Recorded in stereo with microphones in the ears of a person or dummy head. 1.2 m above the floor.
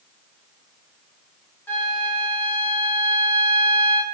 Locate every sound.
1.7 s a flute: 10° left (ahead or behind), 1.2 m